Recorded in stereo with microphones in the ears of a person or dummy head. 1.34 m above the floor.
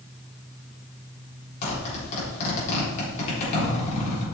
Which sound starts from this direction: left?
A zipper, at 1.6 s.